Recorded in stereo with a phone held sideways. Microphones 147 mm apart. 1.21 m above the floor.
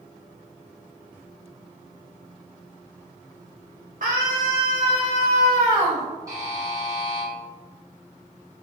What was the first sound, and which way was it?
A scream, 65° right (ahead or behind).